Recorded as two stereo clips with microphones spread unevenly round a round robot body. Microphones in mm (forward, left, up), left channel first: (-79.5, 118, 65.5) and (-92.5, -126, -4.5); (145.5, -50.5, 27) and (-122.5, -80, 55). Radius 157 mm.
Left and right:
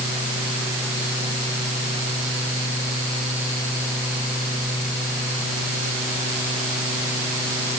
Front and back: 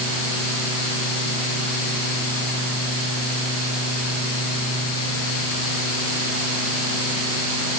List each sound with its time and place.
Only background noise.